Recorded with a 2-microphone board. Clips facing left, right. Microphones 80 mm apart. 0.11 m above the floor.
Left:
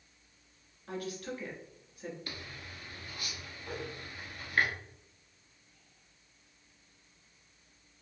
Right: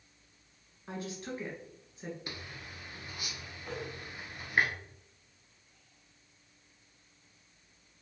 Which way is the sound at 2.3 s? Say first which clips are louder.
Even; 20° right (ahead or behind).